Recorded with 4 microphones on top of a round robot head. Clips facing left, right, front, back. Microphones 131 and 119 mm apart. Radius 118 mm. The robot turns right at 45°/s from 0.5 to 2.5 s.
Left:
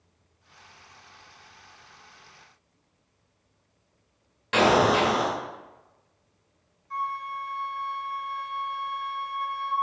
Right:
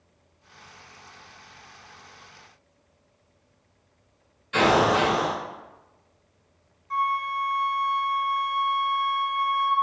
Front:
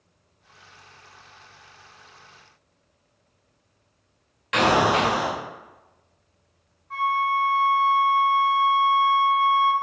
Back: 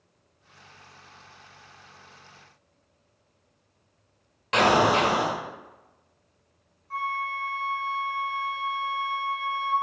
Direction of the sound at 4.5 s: 115° left.